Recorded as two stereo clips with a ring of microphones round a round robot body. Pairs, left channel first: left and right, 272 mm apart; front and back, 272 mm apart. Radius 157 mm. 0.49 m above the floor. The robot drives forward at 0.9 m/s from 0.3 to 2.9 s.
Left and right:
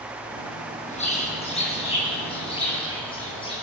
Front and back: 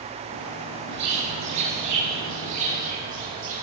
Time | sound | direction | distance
0.9 | a bird | 155° left | 5 m